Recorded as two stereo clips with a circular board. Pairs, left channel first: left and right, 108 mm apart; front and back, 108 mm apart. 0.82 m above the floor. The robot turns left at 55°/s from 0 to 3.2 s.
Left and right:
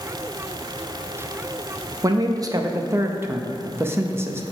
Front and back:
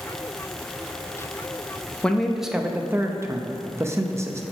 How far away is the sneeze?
I don't hear a sneeze.